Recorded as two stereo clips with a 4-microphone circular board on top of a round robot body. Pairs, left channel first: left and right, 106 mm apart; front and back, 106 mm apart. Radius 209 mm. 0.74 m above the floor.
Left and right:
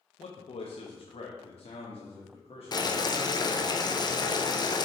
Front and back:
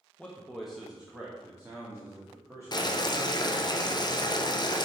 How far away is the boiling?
About 0.9 m.